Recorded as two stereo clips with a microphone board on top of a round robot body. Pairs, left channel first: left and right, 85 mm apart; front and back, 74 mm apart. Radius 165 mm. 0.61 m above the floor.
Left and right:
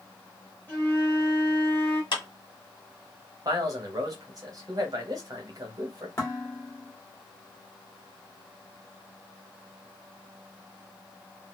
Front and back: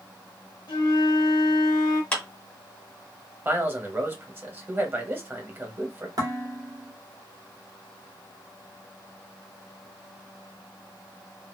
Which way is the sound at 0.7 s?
20° left.